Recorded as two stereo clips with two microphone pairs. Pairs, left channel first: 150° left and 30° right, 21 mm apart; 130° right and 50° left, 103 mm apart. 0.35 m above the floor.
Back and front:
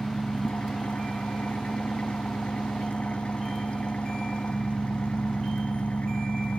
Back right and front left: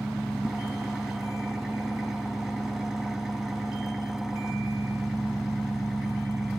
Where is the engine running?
135° left, 0.9 m.